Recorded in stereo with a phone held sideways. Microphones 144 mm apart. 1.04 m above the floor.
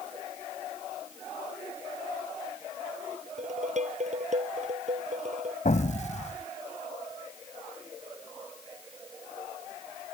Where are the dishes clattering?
55° right (ahead or behind).